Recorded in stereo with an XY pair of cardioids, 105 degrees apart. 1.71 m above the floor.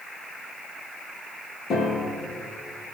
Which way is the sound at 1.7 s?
60° left.